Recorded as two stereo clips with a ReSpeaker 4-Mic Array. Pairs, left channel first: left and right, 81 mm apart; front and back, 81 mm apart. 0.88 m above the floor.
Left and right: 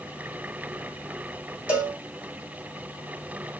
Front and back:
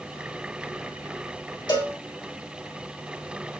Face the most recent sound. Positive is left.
turn(degrees=-20)